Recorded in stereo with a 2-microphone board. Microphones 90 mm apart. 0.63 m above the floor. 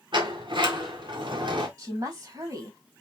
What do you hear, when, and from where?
0.1 s a sliding door: 65° right (ahead or behind), 1.7 m
1.8 s a woman speaking: 45° right (ahead or behind), 3.5 m